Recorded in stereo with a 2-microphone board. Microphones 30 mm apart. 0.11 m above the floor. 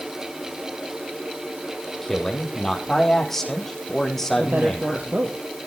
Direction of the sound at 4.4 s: 70° right (ahead or behind).